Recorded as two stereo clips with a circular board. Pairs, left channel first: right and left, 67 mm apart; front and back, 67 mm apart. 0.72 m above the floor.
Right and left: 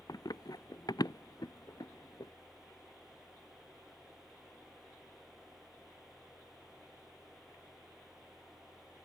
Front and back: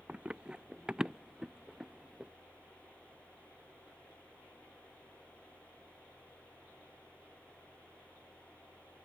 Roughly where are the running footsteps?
Right.